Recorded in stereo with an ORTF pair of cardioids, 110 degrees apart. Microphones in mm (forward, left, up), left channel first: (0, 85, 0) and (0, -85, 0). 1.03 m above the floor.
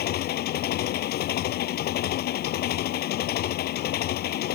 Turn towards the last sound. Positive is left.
turn(degrees=70)